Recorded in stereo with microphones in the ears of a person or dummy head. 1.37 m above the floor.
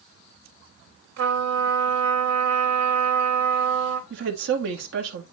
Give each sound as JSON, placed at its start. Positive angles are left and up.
{"t": 1.2, "sound": "a trumpet", "side_deg": -70, "distance_m": 3.0}
{"t": 4.1, "sound": "a woman speaking", "side_deg": -75, "distance_m": 2.0}